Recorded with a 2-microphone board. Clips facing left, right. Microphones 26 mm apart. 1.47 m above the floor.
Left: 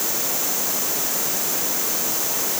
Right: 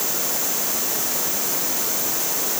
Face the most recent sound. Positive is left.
No sound to turn to.